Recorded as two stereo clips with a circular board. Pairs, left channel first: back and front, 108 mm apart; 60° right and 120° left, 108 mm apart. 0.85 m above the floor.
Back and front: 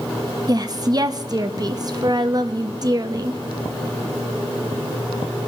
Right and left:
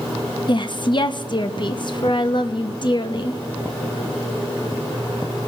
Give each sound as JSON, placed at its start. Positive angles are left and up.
{"t": 0.5, "sound": "a woman speaking", "azimuth_deg": -35, "distance_m": 0.8}